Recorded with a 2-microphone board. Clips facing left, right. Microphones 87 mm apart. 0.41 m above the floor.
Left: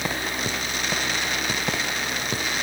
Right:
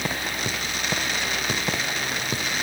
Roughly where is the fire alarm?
I don't hear a fire alarm.